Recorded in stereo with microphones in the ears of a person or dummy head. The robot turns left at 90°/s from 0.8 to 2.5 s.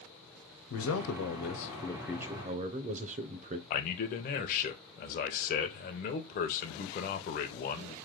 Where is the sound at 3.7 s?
45° left (ahead or behind), 0.7 m.